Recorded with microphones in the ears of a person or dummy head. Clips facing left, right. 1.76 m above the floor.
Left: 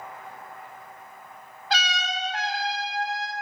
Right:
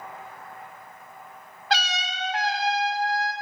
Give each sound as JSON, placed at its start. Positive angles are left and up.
{"t": 1.7, "sound": "a trumpet", "side_deg": -60, "distance_m": 1.6}